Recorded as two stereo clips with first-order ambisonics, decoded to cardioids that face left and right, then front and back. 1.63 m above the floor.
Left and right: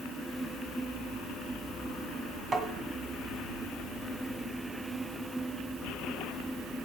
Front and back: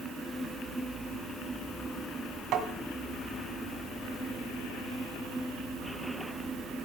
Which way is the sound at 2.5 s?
160° right.